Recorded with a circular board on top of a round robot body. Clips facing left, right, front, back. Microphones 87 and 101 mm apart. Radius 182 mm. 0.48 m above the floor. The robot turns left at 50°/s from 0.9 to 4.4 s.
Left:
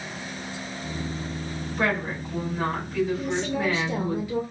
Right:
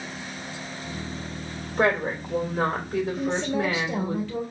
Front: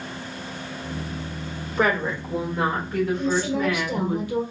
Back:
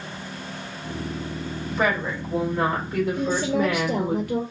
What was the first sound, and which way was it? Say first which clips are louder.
A woman speaking: right 4 dB, front 2 dB; 35° right.